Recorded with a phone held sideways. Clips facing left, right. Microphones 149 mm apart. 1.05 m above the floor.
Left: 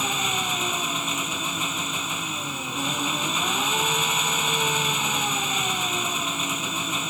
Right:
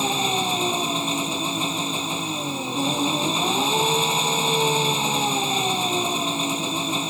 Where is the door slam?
No door slam in this recording.